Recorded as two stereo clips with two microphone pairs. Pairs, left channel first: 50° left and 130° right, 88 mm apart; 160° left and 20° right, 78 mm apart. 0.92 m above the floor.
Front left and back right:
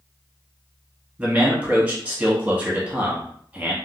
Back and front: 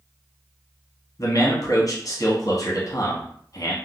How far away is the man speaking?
About 1.1 m.